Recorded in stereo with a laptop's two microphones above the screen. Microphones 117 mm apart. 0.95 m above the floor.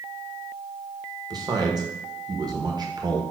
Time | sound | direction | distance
1.3 | a man speaking | 35° right (ahead or behind) | 0.7 m